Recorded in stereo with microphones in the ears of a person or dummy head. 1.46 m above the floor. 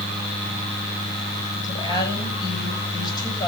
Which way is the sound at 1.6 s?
20° left (ahead or behind).